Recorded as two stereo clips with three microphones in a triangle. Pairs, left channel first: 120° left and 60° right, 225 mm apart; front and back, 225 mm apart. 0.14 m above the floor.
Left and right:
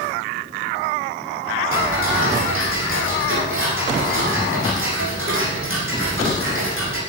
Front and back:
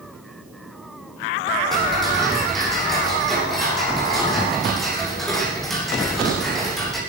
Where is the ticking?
90° right, 8 m.